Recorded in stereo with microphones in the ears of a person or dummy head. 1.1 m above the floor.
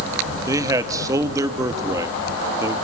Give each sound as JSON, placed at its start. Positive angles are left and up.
{"t": 0.5, "sound": "a man speaking", "side_deg": -20, "distance_m": 1.6}